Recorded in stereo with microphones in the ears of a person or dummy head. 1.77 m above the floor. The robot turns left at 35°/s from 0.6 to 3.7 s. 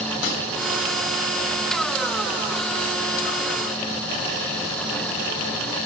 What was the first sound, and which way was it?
A snare drum, 70° left (ahead or behind).